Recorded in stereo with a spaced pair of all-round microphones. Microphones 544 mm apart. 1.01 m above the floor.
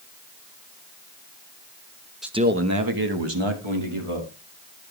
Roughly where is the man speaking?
Centre.